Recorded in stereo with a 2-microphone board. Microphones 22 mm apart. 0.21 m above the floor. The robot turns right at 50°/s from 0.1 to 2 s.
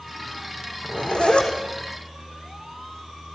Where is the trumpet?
I don't hear a trumpet.